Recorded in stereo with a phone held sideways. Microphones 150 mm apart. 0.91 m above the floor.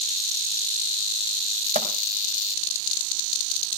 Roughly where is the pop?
Right.